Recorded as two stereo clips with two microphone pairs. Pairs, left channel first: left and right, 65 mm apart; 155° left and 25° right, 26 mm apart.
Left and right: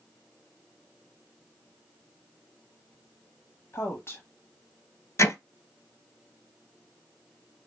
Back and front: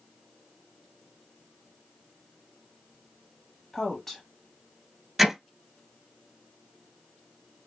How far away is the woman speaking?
About 1.2 m.